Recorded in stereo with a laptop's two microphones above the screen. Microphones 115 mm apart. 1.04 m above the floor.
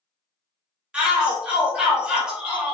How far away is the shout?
About 1.0 m.